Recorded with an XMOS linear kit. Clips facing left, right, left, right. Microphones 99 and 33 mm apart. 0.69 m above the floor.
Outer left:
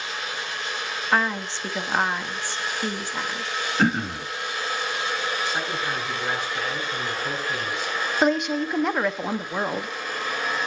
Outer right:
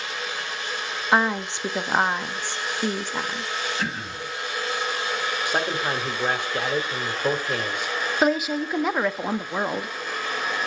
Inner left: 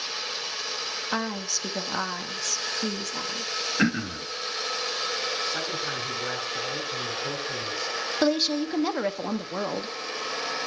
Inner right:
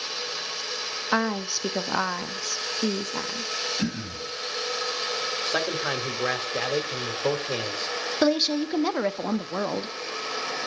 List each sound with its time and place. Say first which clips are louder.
1.1 s a woman speaking: outer right 2 dB, inner right 6 dB; 15° right (ahead or behind), 0.9 m
3.8 s throat clearing: outer left 7 dB, inner left 5 dB; 50° left (ahead or behind), 1.2 m
5.5 s a man speaking: outer right 3 dB, inner right 3 dB; 55° right (ahead or behind), 2 m
8.2 s a woman speaking: even, inner right 1 dB; 5° right (ahead or behind), 0.7 m